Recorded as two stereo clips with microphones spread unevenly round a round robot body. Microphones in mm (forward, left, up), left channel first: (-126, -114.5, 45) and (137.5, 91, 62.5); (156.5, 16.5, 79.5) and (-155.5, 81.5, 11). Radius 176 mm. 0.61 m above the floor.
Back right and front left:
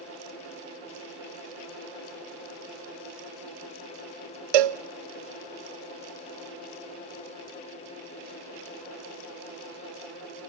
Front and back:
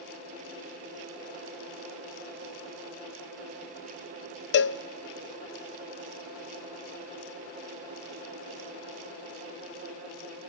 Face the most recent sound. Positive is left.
turn(degrees=50)